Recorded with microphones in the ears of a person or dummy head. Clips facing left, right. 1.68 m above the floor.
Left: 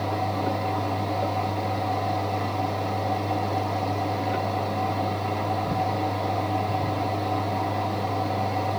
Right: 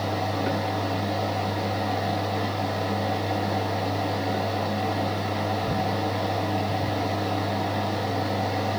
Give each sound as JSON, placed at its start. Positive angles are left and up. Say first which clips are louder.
{"t": 0.0, "sound": "a fan", "louder": "even", "side_deg": -15, "distance_m": 2.5}